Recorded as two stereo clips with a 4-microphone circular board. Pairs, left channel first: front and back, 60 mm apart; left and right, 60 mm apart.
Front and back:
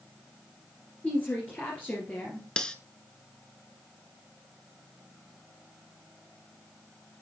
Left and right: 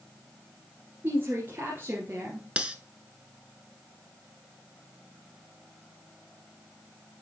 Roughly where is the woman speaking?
Ahead right.